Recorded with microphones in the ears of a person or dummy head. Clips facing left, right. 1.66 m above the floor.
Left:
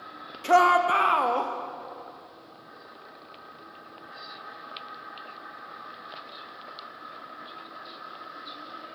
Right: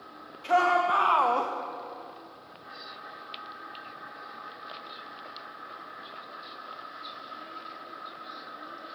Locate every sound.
0.4 s a shout: 55° left (ahead or behind), 0.8 m; by 1.5 s 5° right (ahead or behind), 0.6 m